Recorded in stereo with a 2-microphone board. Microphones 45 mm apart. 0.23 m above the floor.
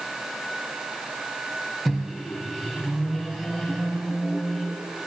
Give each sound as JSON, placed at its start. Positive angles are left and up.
{"t": 1.9, "sound": "a microwave", "side_deg": -5, "distance_m": 1.4}